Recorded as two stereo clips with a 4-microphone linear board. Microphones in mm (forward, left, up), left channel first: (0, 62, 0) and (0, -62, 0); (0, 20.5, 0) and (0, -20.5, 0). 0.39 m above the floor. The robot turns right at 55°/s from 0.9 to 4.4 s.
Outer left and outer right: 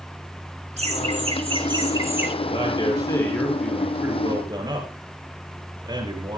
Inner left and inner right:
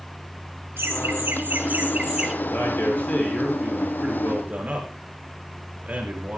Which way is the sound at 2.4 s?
115° left.